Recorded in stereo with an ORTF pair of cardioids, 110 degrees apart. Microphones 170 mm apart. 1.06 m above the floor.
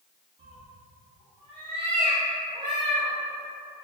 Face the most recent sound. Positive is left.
turn(degrees=-30)